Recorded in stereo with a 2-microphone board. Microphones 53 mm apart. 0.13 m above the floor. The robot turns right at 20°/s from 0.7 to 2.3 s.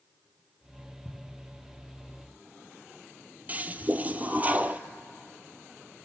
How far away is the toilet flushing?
About 0.7 m.